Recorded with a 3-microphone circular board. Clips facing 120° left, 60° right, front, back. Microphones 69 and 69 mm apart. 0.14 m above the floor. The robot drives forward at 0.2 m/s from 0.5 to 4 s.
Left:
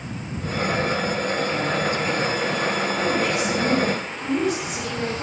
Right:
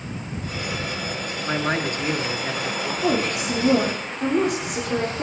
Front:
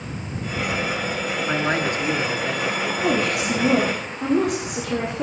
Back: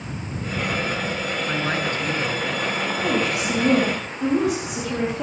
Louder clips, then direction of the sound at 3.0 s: Right 2 dB, front 2 dB; 95° right.